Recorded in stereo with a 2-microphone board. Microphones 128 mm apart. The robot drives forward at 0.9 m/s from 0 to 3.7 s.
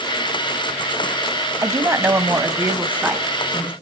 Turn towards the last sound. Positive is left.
turn(degrees=-10)  # may be behind; listen again after turning